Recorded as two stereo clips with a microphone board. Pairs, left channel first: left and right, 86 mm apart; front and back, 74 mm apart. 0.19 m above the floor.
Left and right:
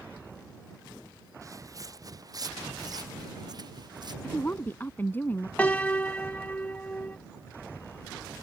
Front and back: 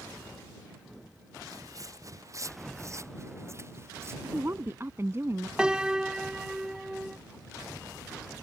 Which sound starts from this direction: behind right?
Footsteps, at 1.4 s.